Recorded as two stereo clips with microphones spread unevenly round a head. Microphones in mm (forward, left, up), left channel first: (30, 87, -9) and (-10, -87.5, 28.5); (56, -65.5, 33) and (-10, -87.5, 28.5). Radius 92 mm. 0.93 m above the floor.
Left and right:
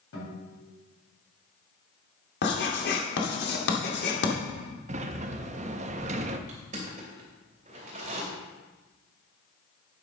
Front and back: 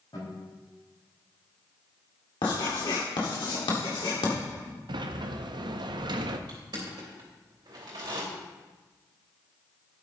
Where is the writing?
45° left, 1.6 m.